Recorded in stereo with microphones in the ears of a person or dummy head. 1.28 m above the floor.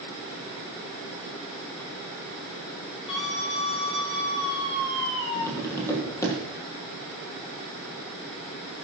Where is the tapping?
15° left (ahead or behind), 5.5 m.